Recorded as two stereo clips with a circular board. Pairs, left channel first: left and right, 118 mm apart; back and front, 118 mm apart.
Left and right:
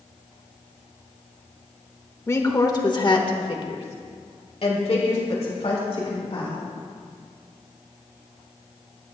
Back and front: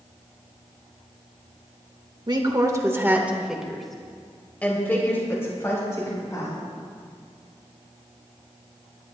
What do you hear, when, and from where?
2.3 s a woman speaking: 30° left, 1.3 m; by 6.7 s 125° left, 3 m